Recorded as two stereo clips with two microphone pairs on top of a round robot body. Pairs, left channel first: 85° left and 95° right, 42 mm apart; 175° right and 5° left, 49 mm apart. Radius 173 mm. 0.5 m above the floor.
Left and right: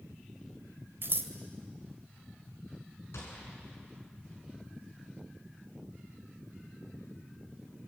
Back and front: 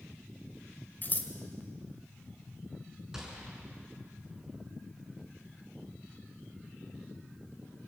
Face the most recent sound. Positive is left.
turn(degrees=85)